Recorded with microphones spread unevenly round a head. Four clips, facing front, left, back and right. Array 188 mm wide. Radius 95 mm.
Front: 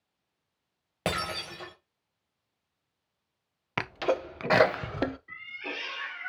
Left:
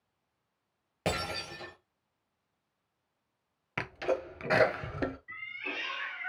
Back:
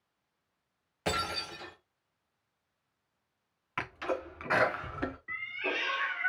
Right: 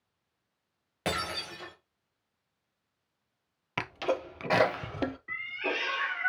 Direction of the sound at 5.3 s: 105° right.